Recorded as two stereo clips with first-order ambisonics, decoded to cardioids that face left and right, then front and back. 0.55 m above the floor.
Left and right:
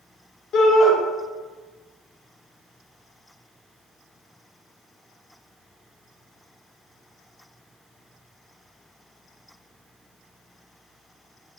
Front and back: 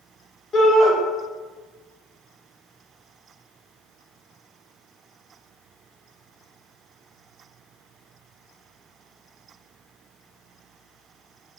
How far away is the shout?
About 0.7 m.